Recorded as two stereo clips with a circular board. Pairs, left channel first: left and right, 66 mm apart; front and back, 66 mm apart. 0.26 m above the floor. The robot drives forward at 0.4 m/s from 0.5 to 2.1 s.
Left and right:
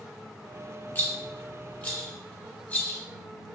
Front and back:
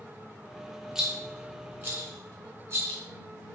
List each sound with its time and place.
0.9 s a rattle: 105° left, 0.6 m; by 3.0 s 150° left, 0.8 m